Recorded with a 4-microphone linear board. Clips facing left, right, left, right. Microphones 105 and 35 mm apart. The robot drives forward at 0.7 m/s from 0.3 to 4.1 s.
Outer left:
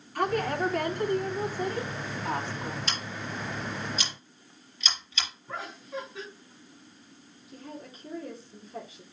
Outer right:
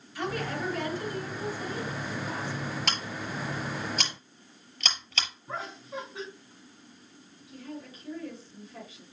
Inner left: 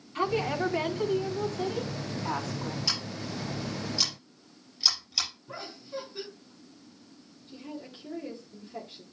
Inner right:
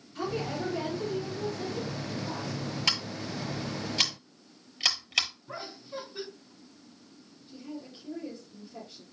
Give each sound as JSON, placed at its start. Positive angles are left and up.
{"t": 0.1, "sound": "a woman speaking", "side_deg": 55, "distance_m": 3.5}
{"t": 2.9, "sound": "scissors", "side_deg": -80, "distance_m": 6.0}
{"t": 5.5, "sound": "laughter", "side_deg": -20, "distance_m": 3.5}
{"t": 7.5, "sound": "a woman speaking", "side_deg": 30, "distance_m": 3.5}